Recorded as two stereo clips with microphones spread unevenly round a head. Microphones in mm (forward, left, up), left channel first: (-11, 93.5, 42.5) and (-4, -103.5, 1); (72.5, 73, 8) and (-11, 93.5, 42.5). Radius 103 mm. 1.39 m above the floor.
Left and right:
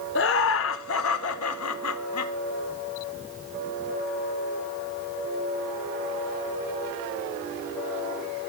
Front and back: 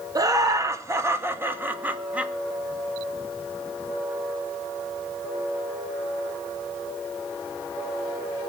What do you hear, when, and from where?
0.1 s laughter: 120° left, 2 m; by 2.3 s 90° left, 2 m